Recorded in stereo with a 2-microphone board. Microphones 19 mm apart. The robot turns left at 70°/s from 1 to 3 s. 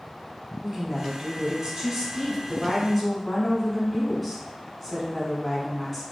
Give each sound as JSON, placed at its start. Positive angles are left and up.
{"t": 0.6, "sound": "a woman speaking", "azimuth_deg": -45, "distance_m": 1.2}